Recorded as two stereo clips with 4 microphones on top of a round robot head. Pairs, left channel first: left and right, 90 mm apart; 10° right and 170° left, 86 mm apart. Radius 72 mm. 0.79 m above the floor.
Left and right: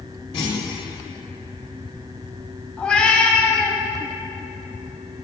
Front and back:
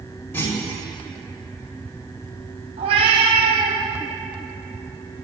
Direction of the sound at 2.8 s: 170° left.